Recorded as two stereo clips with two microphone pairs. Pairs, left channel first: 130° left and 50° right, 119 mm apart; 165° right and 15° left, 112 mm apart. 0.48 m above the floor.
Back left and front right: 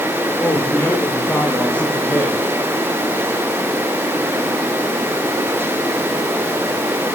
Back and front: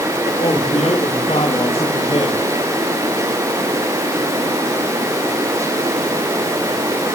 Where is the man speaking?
155° right, 4.5 m; by 2.4 s 150° right, 3 m.